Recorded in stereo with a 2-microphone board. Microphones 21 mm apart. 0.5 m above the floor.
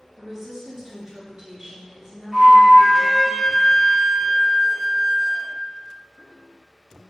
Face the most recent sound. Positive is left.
turn(degrees=-30)  # may be behind; listen again after turning